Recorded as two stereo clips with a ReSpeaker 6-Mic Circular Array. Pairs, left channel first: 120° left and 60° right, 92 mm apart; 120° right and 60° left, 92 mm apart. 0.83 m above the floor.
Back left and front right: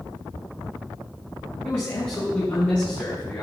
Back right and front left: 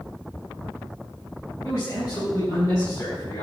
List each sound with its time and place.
1.6 s a man speaking: 175° right, 4 m; by 3.4 s 170° right, 5 m